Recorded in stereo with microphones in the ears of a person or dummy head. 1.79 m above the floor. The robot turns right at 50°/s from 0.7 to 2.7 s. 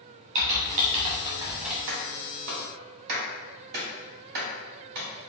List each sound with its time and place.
0.3 s typing on a keyboard: 35° right (ahead or behind), 1.1 m; by 1.8 s 5° right (ahead or behind), 1.1 m
1.9 s a clap: 70° right (ahead or behind), 1.4 m; by 5.1 s 60° right (ahead or behind), 1.4 m